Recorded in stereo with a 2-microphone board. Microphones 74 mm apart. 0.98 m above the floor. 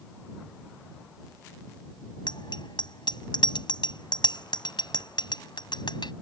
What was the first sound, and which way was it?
A bicycle bell, 80° left.